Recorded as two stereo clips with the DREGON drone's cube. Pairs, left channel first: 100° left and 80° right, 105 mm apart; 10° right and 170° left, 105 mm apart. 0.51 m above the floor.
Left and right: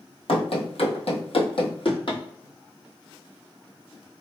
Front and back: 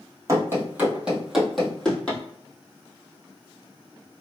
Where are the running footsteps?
110° left, 1.0 m; by 2.2 s 65° left, 1.4 m.